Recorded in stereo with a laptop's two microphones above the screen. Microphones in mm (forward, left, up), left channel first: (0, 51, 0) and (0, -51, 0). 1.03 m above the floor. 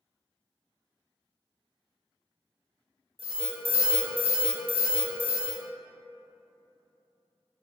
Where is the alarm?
75° right (ahead or behind), 0.8 m.